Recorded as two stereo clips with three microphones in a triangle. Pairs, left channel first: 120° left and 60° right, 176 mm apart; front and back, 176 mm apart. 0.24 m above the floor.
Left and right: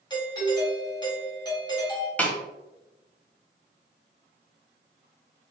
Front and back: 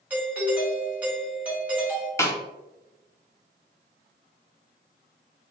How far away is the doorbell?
About 1.9 m.